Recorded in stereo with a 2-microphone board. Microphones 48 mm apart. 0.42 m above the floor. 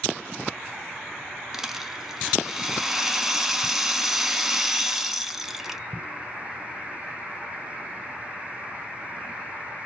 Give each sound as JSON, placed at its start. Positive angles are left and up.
{"t": 1.5, "sound": "a rattle", "side_deg": -5, "distance_m": 0.6}